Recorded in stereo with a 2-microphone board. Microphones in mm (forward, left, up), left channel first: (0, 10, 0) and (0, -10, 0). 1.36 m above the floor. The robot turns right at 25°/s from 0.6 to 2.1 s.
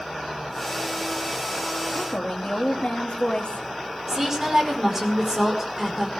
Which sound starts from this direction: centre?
A woman speaking, at 4.1 s.